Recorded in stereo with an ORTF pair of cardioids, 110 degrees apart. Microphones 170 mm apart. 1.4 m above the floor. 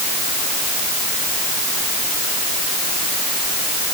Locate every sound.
Only background noise.